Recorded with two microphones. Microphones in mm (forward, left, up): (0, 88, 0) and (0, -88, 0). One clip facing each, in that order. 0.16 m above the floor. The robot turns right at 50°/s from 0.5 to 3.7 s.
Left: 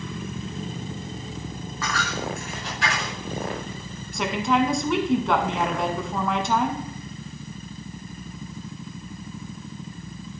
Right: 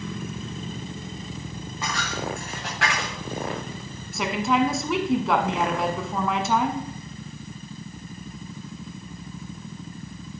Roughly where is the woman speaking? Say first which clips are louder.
Even; centre.